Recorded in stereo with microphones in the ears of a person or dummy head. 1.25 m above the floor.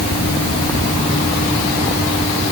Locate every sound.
Only background noise.